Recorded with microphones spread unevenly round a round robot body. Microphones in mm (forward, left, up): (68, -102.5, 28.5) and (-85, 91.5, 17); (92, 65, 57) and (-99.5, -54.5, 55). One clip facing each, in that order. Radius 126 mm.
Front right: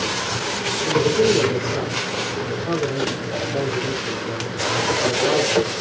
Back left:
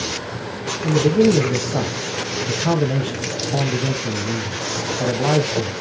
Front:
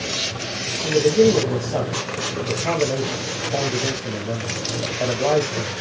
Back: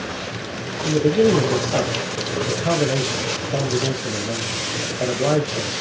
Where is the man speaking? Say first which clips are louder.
Back left 2 dB, front 1 dB; 140° left, 2.5 m.